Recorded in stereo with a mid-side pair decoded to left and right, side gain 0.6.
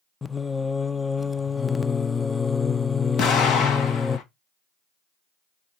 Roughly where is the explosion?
Ahead left.